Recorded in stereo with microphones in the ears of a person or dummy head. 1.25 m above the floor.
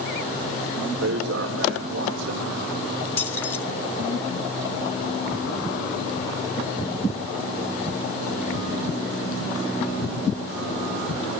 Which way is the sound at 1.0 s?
75° right (ahead or behind).